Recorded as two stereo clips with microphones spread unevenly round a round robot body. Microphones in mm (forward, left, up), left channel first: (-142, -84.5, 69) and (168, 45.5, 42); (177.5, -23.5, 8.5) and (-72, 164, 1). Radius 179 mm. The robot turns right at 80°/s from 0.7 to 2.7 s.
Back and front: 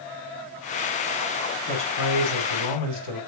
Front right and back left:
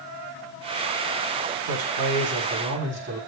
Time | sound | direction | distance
1.7 | a man speaking | 120° left | 5.5 m